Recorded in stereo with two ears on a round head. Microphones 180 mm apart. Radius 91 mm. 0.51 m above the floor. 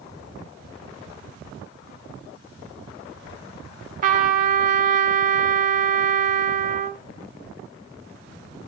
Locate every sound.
4.0 s a trumpet: 40° right (ahead or behind), 1.0 m